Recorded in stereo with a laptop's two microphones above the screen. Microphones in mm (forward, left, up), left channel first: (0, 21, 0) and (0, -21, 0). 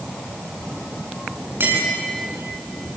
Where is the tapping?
65° right (ahead or behind), 6.5 m.